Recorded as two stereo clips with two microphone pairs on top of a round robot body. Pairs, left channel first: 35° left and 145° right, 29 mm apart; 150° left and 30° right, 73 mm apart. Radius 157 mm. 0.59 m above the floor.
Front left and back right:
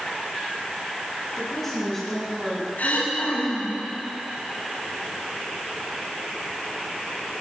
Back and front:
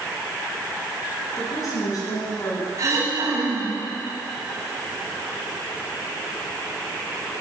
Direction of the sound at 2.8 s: 15° left.